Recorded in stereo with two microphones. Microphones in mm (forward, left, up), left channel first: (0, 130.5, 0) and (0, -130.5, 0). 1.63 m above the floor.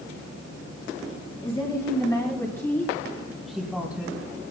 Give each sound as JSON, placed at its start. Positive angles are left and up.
{"t": 1.4, "sound": "a woman speaking", "side_deg": 20, "distance_m": 4.5}